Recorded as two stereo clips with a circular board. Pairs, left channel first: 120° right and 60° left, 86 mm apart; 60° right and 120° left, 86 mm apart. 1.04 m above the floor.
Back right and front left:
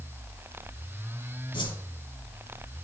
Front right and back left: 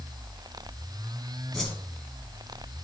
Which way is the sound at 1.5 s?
140° right.